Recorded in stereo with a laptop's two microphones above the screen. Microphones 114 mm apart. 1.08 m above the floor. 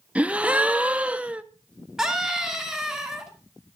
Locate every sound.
0.1 s a gasp: 10° right (ahead or behind), 0.6 m
2.0 s a scream: 5° right (ahead or behind), 2.0 m